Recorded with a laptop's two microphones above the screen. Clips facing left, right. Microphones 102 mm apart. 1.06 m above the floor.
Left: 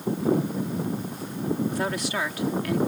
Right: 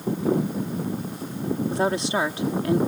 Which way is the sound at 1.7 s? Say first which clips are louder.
Right 4 dB; 25° right (ahead or behind).